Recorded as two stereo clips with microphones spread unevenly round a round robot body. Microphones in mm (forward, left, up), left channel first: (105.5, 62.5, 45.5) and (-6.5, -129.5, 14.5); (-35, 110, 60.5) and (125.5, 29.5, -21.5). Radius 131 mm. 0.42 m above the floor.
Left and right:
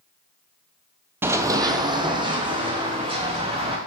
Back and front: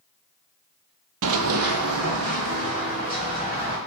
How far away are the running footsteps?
About 0.5 m.